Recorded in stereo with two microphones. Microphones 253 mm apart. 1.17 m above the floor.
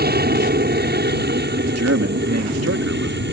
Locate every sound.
0.0 s an aircraft: 40° right (ahead or behind); by 3.3 s 45° right (ahead or behind)
1.7 s a man speaking: 75° right (ahead or behind)